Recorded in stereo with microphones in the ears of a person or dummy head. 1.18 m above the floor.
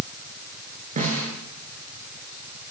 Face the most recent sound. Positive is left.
turn(degrees=-40)  # may be behind; listen again after turning